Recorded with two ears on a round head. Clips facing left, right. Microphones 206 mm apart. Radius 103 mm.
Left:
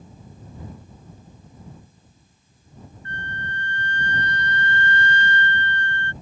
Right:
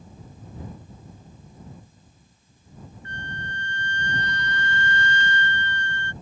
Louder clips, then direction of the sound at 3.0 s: Left 2 dB; 60° right (ahead or behind).